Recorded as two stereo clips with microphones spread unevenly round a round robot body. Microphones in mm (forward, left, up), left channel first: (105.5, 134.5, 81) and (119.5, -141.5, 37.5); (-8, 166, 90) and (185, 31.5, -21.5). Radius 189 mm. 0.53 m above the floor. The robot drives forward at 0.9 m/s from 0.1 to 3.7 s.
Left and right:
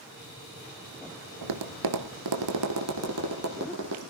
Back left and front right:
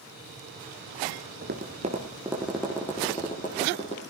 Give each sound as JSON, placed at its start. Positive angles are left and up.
{"t": 1.4, "sound": "tapping", "azimuth_deg": -100, "distance_m": 1.7}